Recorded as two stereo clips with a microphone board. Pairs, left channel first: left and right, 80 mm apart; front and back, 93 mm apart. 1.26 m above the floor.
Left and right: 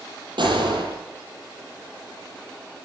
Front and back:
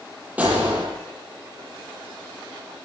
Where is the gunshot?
105° right, 9.5 m.